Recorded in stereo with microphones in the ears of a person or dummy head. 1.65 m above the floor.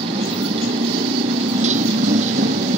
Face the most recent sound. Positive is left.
turn(degrees=-45)  # may be behind; listen again after turning